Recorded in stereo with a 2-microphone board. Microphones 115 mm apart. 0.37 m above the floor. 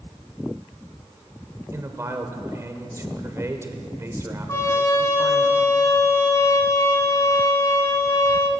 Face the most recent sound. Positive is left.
turn(degrees=25)  # may be behind; listen again after turning